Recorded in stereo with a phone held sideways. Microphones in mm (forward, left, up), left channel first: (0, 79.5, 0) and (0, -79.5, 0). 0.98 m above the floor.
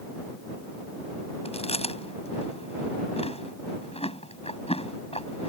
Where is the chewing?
40° left (ahead or behind).